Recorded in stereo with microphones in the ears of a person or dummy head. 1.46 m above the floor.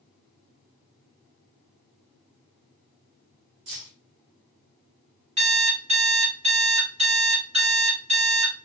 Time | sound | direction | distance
3.7 | keys jangling | 60° right (ahead or behind) | 1.3 m
5.4 | an alarm clock | 35° right (ahead or behind) | 1.2 m